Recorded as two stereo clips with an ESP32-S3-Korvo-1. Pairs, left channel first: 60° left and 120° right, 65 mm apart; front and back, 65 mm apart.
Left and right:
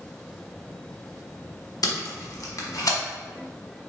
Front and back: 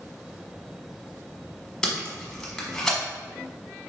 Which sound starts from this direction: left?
Tape being pulled, at 1.8 s.